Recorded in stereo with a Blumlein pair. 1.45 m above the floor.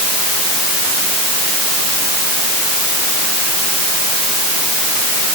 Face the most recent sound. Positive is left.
No sound to turn to.